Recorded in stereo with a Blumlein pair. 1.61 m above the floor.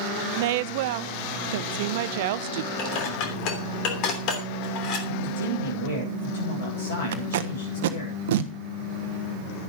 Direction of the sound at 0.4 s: 50° right.